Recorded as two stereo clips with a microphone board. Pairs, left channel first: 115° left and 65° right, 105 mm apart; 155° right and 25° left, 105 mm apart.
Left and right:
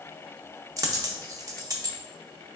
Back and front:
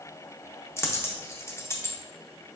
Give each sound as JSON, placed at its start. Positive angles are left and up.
{"t": 0.8, "sound": "a dropped coin", "azimuth_deg": -105, "distance_m": 0.5}